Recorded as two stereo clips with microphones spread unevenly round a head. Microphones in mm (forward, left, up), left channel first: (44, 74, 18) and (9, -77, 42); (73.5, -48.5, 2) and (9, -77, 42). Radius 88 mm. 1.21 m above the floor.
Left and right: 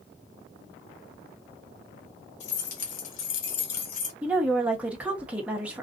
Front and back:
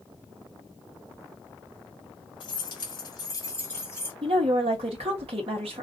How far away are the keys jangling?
About 1.7 m.